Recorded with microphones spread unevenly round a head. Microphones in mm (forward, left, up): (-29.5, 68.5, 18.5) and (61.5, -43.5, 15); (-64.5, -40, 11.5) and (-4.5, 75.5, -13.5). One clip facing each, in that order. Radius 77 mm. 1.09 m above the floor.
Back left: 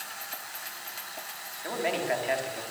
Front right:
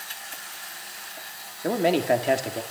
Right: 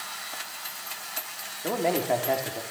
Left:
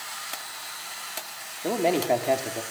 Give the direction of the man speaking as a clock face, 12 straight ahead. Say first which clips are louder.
Front right 8 dB, left 2 dB; 12 o'clock.